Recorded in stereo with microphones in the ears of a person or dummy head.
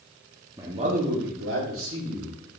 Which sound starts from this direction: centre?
A man speaking, at 0.6 s.